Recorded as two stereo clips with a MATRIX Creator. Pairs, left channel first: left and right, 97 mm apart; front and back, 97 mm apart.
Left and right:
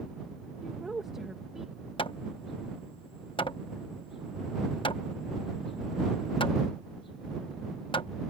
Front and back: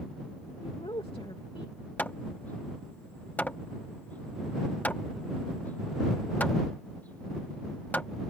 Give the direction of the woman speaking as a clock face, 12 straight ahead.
12 o'clock.